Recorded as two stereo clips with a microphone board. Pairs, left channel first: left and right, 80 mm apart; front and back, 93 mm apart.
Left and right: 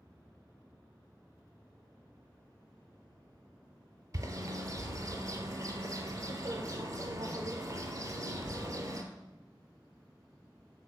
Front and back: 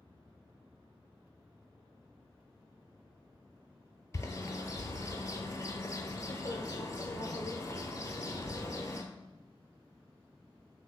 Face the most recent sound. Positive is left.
turn(degrees=-50)